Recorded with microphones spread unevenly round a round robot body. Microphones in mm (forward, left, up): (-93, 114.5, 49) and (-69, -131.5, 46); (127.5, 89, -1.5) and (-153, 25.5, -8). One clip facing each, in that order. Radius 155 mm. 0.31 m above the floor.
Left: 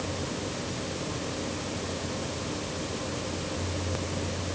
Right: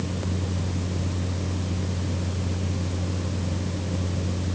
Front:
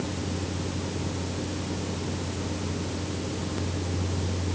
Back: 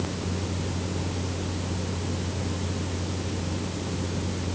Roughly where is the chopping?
I don't hear chopping.